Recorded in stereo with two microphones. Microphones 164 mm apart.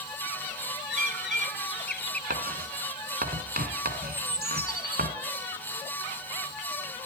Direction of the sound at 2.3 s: 65° right (ahead or behind).